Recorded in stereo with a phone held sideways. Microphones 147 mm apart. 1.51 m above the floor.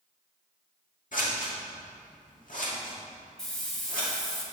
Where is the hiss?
5° left (ahead or behind), 1.4 m.